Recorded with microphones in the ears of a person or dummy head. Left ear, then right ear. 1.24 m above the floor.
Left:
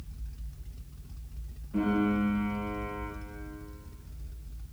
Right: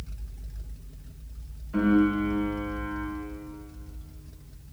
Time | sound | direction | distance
1.7 | a piano | 55° right (ahead or behind) | 2 m